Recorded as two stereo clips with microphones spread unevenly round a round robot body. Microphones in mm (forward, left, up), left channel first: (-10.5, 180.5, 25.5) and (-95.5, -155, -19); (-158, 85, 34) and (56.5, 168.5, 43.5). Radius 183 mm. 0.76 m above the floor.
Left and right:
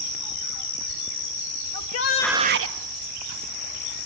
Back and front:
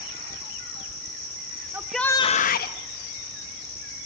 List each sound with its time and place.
1.7 s a shout: 100° left, 0.9 m; by 2.8 s 120° right, 1.0 m